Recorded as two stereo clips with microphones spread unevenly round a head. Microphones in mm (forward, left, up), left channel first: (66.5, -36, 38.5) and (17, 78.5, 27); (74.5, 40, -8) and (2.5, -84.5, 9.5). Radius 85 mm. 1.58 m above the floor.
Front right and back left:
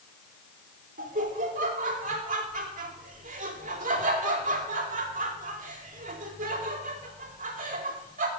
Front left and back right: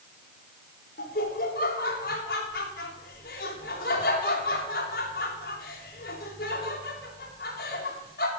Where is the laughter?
100° left, 2.5 m.